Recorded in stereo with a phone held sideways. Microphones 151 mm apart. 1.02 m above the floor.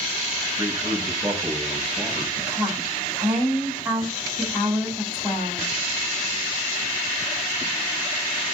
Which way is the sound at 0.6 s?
10° right (ahead or behind).